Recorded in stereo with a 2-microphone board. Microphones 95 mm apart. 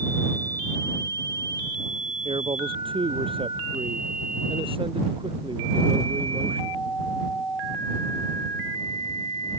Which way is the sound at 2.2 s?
65° right (ahead or behind).